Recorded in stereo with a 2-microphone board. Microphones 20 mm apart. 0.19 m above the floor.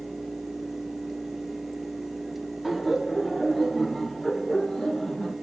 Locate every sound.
2.6 s laughter: 15° right (ahead or behind), 1.2 m; by 5.3 s 45° left (ahead or behind), 1.6 m